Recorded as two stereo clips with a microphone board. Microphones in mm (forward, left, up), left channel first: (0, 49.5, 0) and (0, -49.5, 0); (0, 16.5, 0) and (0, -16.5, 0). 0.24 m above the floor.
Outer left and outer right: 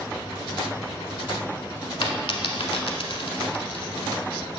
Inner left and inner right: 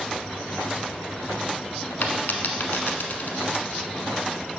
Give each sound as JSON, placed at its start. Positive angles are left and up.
{"t": 2.0, "sound": "a dropped coin", "side_deg": 65, "distance_m": 0.8}